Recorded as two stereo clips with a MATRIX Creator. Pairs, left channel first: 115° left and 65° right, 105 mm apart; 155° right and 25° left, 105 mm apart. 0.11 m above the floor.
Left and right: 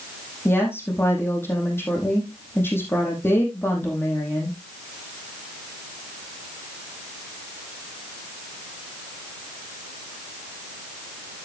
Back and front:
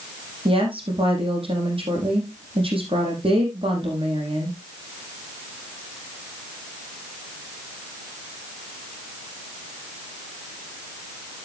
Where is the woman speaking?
45° left, 4.5 m.